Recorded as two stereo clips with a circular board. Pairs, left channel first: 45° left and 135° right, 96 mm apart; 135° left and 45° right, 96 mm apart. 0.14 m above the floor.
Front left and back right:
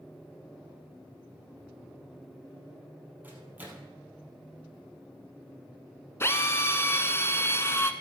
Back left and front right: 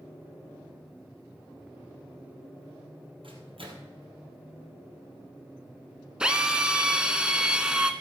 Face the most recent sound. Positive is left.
turn(degrees=25)